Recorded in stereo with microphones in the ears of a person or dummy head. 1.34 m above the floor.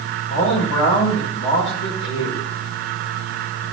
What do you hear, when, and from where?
0.3 s a man speaking: 70° left (ahead or behind), 3 m